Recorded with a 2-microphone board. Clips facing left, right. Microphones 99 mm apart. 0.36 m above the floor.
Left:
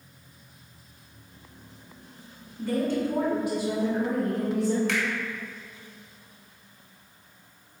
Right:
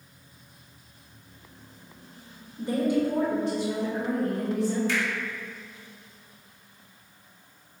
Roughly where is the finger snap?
Left.